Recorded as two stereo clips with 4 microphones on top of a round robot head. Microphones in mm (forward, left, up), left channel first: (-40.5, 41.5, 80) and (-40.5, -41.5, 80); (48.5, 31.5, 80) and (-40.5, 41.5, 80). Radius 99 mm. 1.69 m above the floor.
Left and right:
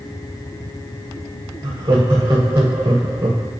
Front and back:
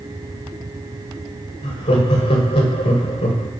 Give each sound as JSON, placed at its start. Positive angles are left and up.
{"t": 1.6, "sound": "laughter", "azimuth_deg": -25, "distance_m": 2.0}